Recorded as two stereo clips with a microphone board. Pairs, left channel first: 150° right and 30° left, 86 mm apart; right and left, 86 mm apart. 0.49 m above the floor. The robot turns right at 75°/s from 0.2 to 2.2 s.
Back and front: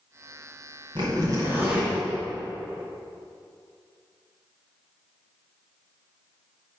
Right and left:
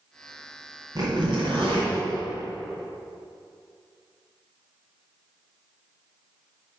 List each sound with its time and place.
0.9 s a zipper: 45° left, 2 m; by 1.9 s 120° left, 2 m